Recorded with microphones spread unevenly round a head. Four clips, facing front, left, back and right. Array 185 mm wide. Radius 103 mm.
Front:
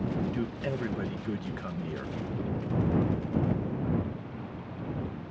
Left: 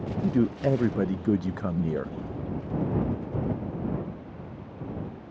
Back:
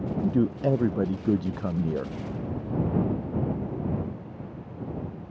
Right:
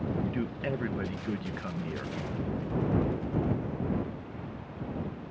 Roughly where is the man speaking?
Behind left.